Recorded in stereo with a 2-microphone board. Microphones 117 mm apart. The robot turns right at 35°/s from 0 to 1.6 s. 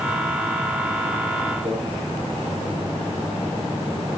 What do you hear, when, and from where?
1.6 s a microwave: 75° right (ahead or behind), 10 m